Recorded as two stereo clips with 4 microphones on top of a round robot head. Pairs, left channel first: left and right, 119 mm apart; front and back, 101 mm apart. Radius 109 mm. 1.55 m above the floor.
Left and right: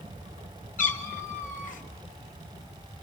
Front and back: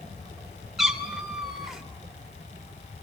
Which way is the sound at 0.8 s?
90° left.